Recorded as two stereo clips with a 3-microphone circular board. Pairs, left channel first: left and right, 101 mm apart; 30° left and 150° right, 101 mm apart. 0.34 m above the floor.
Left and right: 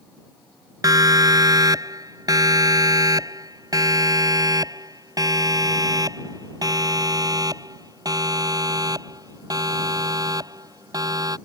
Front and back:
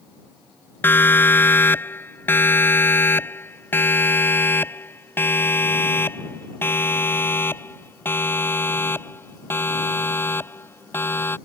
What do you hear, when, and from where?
0.8 s a siren: 40° right